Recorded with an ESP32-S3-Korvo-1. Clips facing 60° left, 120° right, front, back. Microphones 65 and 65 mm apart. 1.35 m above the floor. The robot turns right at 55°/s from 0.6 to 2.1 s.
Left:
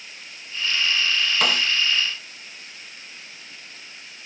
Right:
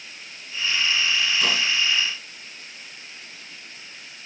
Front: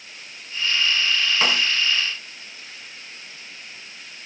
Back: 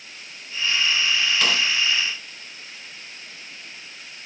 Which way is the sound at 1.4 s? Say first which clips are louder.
Left 2 dB, front 3 dB; 60° left.